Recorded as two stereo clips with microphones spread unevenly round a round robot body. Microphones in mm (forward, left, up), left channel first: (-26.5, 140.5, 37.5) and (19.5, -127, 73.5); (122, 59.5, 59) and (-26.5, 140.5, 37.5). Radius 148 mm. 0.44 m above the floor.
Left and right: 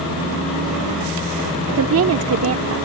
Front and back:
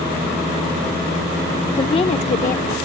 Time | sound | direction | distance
1.7 | a woman speaking | 100° right | ?